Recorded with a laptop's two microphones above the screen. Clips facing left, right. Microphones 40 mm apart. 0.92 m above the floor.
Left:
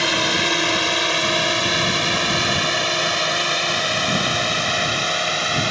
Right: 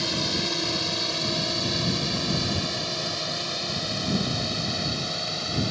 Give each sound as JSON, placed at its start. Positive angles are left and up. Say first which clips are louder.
{"t": 0.0, "sound": "a drone", "louder": "left 9 dB", "side_deg": 65}